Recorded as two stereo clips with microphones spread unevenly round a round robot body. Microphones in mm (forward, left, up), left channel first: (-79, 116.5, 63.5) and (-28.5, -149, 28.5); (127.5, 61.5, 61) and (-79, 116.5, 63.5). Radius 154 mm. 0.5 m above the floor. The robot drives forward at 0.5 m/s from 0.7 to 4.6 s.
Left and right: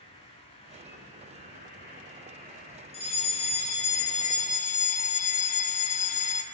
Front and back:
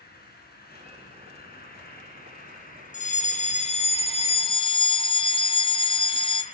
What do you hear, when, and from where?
0.0 s an insect: 30° left, 6.5 m; by 6.5 s 40° left, 4.5 m
2.9 s a fire alarm: 30° left, 3.5 m; by 6.4 s 40° left, 3 m